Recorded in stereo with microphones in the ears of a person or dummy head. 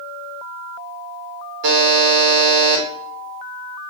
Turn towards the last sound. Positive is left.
turn(degrees=-60)  # may be behind; listen again after turning